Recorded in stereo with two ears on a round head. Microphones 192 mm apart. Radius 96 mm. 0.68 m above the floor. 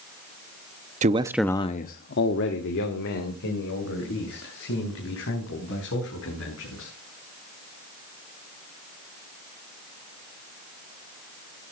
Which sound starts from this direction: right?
A man speaking, at 1.0 s.